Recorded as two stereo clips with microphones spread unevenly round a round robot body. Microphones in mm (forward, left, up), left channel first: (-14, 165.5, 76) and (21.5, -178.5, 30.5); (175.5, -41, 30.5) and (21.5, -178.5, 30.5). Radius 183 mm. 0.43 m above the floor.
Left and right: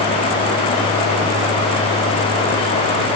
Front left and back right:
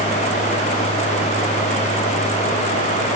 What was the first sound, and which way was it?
Only background noise.